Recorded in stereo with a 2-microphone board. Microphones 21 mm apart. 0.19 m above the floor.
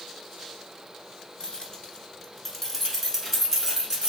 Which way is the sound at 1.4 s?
40° left (ahead or behind).